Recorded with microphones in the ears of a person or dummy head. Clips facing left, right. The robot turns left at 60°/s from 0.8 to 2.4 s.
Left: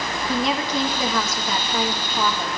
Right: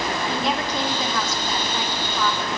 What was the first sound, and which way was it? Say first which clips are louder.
A woman speaking: left 5 dB; 105° left.